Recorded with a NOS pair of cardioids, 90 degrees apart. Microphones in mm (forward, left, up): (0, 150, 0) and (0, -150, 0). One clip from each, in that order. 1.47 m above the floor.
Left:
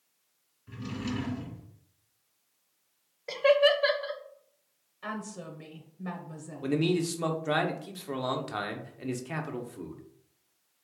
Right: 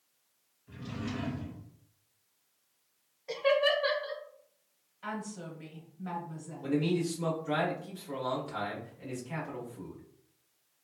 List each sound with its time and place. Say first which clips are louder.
0.7 s a drawer: left 3 dB; 55° left, 1.9 m
3.3 s laughter: left 4 dB; 30° left, 0.9 m
5.0 s a woman speaking: left 1 dB; 35° left, 0.9 m
6.6 s a man speaking: left 3 dB; 60° left, 0.9 m